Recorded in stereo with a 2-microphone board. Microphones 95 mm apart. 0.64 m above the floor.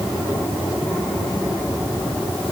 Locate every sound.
Only background noise.